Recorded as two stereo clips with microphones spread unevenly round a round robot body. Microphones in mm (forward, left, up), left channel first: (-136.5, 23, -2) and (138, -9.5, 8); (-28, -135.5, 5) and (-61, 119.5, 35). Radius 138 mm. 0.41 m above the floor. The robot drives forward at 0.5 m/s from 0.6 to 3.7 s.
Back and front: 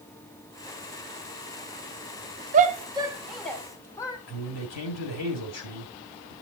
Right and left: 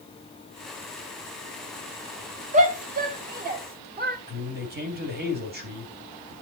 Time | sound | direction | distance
2.5 | a shout | 40° left | 0.9 m
4.3 | a man speaking | 150° left | 2.5 m